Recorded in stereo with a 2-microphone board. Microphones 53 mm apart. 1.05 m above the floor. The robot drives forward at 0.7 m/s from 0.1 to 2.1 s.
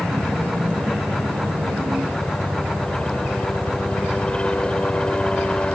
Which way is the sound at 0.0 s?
15° left (ahead or behind).